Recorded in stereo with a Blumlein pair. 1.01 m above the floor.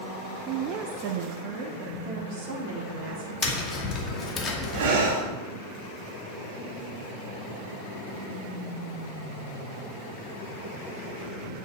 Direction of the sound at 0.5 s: 35° right.